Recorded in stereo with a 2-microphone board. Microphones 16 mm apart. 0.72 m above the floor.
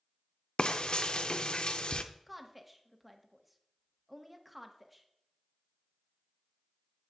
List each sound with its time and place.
0.6 s frying: 70° left (ahead or behind), 0.6 m
2.3 s a woman speaking: 5° right (ahead or behind), 1.0 m